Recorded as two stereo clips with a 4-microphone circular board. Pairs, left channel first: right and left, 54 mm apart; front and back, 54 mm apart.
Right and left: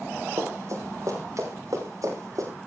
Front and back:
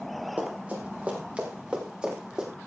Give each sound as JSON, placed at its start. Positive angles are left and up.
{"t": 0.4, "sound": "running footsteps", "azimuth_deg": 120, "distance_m": 5.5}